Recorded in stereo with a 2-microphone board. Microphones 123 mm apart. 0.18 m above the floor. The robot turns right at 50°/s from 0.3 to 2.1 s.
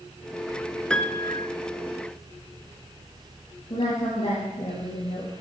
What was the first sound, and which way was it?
A piano, 10° left (ahead or behind).